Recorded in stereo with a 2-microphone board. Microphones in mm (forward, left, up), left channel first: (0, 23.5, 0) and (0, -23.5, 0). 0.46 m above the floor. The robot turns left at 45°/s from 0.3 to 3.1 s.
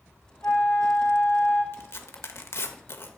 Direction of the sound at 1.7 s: 50° left (ahead or behind).